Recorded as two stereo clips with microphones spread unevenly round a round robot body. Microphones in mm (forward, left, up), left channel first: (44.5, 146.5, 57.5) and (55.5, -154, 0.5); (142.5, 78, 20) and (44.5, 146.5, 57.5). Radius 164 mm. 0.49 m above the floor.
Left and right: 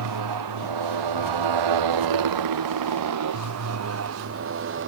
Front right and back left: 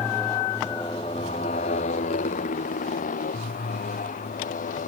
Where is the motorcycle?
120° right; by 4.9 s 35° right.